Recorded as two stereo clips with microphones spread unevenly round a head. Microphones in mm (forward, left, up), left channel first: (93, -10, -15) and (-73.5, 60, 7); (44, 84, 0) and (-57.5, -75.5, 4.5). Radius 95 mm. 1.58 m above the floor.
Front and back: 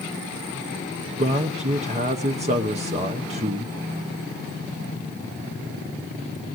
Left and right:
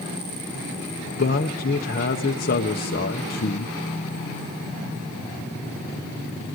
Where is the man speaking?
100° left, 1.0 m.